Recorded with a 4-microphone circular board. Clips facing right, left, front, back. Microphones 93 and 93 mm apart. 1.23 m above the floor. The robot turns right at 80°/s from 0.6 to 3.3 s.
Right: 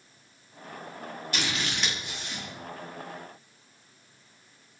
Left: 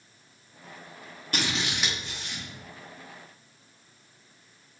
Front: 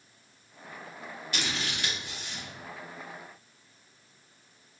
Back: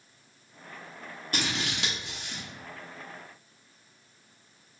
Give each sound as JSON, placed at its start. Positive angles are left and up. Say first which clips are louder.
{"t": 1.3, "sound": "scissors", "louder": "left 2 dB, back 3 dB", "azimuth_deg": 135, "distance_m": 1.1}